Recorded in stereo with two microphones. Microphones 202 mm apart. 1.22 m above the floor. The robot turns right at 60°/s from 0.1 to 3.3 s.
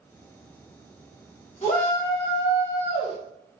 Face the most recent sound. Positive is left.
turn(degrees=140)